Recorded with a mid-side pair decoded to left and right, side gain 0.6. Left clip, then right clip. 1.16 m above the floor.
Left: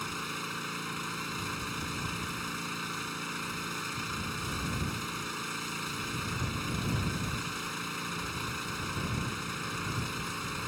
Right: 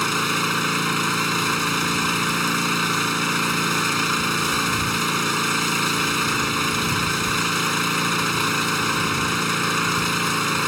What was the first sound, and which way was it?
An engine running, 60° right.